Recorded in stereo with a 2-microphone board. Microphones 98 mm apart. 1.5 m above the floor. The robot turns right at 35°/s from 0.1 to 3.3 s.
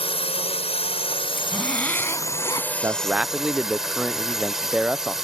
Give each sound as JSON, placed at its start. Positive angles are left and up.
{"t": 0.0, "sound": "a drone", "azimuth_deg": 75}
{"t": 1.4, "sound": "a zipper", "azimuth_deg": 0}
{"t": 2.8, "sound": "a man speaking", "side_deg": -25}